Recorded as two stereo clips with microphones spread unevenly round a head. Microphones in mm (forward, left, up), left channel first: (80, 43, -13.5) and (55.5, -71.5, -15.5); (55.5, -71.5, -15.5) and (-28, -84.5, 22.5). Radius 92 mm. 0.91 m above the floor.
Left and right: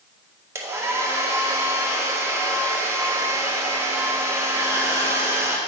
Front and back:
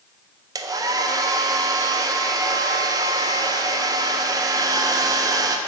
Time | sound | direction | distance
0.6 | a hair dryer | 125° right | 0.5 m